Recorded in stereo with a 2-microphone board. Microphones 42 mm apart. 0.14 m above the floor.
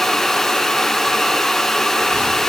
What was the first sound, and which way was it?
Only background noise.